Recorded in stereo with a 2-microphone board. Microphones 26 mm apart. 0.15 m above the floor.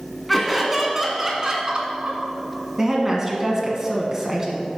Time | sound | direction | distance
0.3 | laughter | 5° left (ahead or behind) | 1.4 m
2.8 | a woman speaking | 20° right (ahead or behind) | 1.4 m